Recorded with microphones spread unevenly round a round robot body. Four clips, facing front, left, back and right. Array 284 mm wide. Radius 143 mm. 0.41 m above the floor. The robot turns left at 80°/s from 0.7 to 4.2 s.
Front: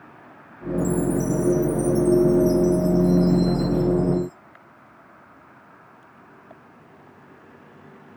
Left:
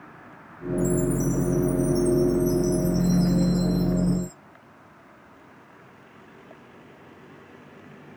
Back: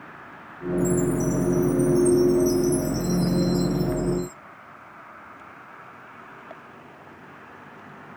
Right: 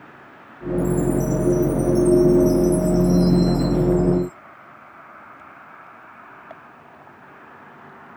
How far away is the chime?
About 0.7 m.